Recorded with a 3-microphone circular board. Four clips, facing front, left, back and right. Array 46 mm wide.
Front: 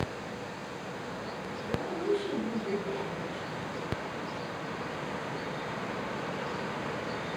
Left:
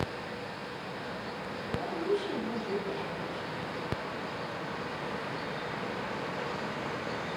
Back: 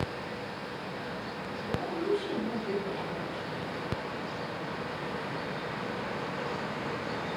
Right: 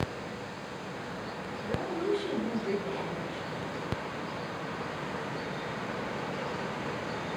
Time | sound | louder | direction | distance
1.6 | a woman speaking | right 2 dB, even | 70° right | 9.5 m